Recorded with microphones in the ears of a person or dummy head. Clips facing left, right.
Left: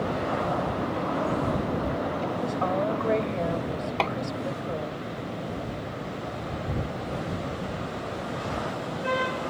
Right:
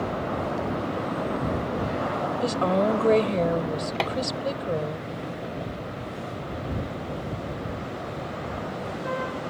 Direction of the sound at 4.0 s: 20° right (ahead or behind).